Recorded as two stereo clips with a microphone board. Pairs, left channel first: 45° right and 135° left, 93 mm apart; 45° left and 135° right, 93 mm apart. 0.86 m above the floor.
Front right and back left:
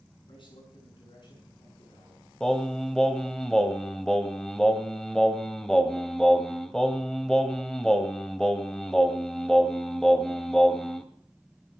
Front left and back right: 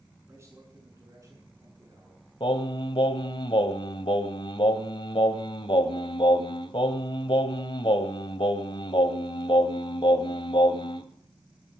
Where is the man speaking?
75° right, 7.5 m; by 2.2 s 85° right, 9 m.